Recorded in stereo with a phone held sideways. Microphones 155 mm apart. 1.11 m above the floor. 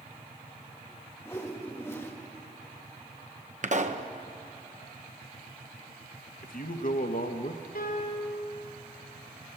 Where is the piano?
80° left, 4 m.